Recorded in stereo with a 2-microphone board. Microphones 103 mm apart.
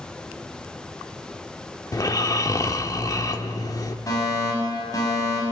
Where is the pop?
I don't hear a pop.